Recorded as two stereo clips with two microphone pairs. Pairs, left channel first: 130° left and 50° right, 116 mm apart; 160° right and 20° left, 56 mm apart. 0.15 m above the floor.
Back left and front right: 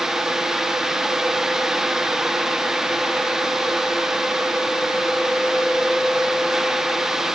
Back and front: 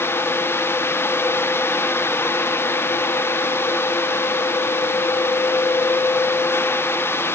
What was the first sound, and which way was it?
Only background noise.